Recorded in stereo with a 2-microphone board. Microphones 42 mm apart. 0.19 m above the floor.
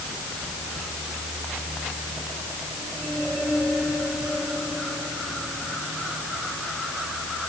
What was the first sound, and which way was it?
Only background noise.